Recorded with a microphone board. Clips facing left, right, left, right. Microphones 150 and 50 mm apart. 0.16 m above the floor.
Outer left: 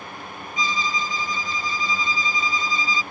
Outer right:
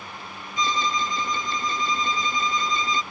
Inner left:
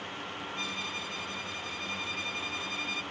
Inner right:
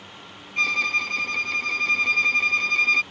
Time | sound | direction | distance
0.6 | a violin | 65° right (ahead or behind) | ?